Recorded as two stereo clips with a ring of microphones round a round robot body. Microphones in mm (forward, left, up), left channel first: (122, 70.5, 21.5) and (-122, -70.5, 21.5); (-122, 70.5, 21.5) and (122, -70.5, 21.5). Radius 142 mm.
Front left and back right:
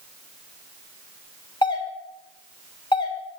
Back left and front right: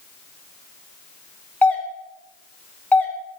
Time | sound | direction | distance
1.6 | a doorbell | 75° left | 1.4 m